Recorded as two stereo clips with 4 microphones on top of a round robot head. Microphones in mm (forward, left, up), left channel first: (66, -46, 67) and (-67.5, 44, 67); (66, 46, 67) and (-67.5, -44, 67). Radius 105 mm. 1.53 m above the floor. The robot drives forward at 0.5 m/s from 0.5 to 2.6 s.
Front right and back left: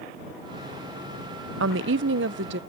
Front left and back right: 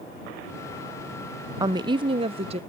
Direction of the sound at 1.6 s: 145° left.